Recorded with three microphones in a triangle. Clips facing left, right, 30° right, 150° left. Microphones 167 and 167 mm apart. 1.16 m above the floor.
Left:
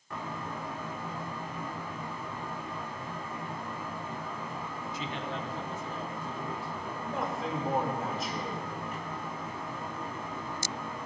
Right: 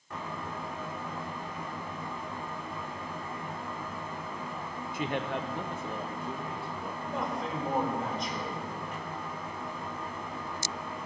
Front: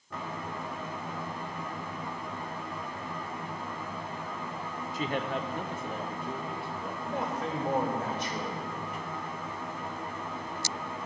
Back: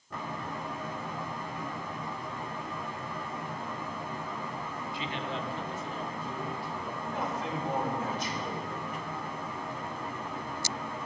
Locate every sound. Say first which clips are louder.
4.9 s a man speaking: right 6 dB, front 6 dB; 70° right, 0.5 m; by 6.9 s 60° right, 1.7 m
7.0 s a man speaking: even, front 2 dB; 5° left, 2 m